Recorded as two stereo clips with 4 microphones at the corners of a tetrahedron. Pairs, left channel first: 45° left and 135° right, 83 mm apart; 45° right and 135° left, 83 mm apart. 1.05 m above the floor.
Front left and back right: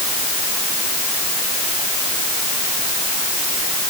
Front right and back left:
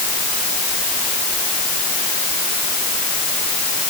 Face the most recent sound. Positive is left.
No sound to turn to.